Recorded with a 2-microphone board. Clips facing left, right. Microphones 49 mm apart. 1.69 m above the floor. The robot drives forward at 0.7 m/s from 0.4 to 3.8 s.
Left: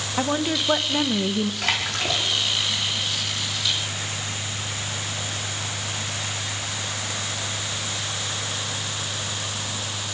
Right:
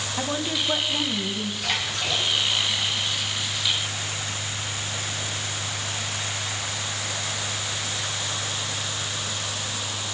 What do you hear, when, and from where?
0.2 s a woman speaking: 25° left (ahead or behind), 1.4 m; by 1.5 s 40° left (ahead or behind), 0.9 m
1.6 s a splash: 85° left, 5 m; by 2.3 s 80° left, 5 m